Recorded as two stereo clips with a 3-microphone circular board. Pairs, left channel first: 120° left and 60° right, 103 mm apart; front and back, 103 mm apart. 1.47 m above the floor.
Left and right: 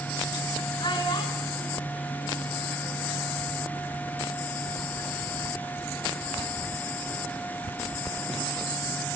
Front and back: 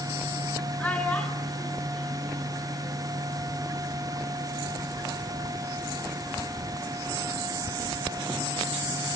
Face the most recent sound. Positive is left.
turn(degrees=75)